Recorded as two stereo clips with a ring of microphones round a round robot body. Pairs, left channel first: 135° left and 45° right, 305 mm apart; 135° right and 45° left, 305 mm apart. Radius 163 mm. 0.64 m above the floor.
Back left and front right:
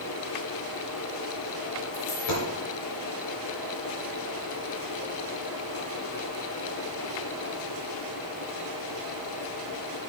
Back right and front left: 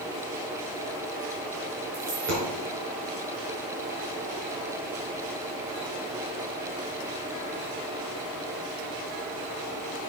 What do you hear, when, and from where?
1.9 s a dropped coin: 100° left, 3 m